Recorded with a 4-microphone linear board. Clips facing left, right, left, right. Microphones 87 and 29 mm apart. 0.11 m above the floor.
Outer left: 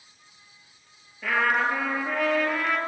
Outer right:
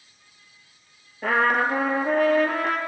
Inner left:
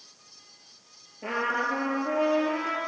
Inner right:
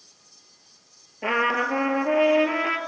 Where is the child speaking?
I don't hear a child speaking.